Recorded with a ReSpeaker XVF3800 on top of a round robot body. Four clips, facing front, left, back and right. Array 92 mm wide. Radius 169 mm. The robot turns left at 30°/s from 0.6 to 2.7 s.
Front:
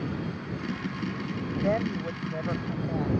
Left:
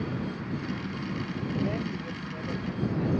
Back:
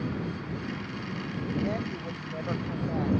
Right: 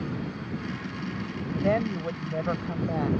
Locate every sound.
1.6 s a woman speaking: 60° right; by 3.1 s 90° right